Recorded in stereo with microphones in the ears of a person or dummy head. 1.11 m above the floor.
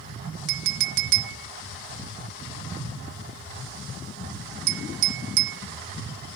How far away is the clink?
About 0.6 m.